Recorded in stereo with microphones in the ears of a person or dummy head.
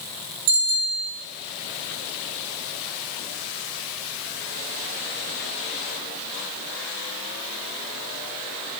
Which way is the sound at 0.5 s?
70° right (ahead or behind).